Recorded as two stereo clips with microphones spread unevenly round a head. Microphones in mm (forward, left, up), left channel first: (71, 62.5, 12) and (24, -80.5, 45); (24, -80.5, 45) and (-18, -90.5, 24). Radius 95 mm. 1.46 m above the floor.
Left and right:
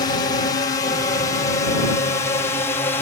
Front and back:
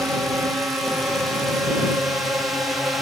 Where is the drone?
125° left; by 3.0 s 135° left.